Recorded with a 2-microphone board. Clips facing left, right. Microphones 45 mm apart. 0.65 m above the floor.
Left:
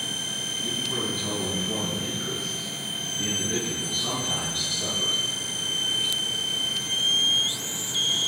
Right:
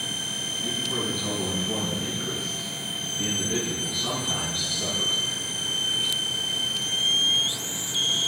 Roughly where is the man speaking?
Centre.